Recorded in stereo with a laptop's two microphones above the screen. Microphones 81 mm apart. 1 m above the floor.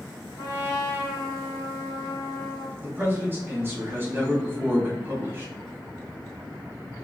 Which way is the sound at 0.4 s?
55° left (ahead or behind).